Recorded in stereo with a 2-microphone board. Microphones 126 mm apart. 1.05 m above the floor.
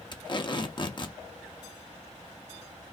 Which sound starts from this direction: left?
Tape being pulled, at 0.1 s.